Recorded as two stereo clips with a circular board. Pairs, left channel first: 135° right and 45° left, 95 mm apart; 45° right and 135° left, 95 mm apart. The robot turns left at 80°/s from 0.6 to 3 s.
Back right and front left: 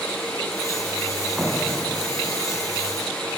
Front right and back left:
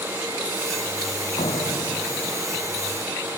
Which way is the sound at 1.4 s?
35° right.